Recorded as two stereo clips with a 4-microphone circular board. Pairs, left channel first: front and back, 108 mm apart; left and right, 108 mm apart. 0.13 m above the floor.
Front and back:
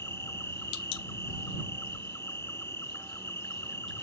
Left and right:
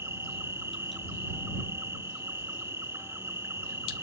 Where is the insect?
45° right.